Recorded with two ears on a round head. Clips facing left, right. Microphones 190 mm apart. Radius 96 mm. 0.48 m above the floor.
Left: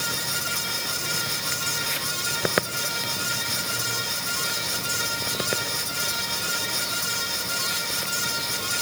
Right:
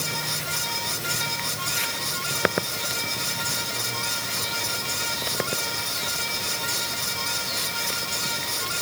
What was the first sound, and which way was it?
Only background noise.